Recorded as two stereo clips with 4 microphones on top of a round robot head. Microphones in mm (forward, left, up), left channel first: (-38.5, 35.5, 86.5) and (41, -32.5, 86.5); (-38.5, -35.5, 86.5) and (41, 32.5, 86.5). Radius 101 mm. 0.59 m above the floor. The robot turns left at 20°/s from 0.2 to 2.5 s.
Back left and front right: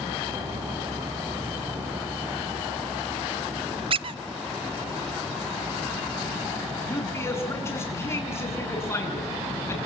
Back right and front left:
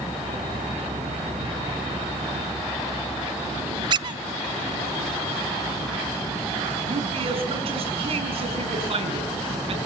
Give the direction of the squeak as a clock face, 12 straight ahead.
12 o'clock.